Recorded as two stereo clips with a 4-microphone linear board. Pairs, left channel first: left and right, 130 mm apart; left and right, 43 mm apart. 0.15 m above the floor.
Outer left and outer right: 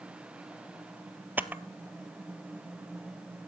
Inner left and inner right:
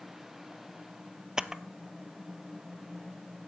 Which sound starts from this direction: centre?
A camera shutter, at 1.4 s.